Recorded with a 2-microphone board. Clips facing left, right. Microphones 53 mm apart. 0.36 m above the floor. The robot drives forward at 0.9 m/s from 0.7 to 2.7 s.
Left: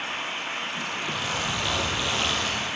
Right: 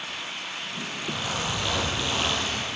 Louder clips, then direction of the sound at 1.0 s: Right 1 dB; centre (ahead or behind).